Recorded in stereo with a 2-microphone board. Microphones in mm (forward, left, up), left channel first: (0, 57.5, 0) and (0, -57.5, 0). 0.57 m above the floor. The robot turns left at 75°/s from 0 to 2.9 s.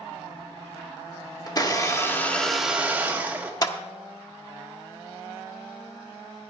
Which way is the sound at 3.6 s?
35° left (ahead or behind).